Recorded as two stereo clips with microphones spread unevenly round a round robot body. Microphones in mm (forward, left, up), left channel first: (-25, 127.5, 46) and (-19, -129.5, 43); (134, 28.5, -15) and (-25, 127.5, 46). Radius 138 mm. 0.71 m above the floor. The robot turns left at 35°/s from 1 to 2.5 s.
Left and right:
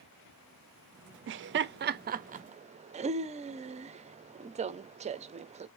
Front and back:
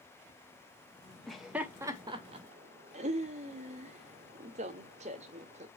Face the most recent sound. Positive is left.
turn(degrees=-145)